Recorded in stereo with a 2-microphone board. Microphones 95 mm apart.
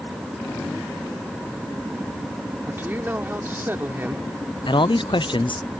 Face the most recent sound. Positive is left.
turn(degrees=60)  # may be behind; listen again after turning